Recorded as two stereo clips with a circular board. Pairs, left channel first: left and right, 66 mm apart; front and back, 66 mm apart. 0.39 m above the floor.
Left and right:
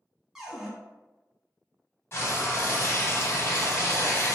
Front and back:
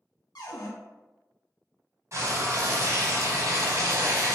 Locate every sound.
0.3 s a cupboard door: 10° right, 0.9 m
2.1 s frying: 140° left, 0.7 m